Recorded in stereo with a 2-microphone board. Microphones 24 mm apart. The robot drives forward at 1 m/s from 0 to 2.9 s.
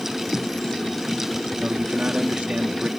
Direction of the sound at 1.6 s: 70° right (ahead or behind).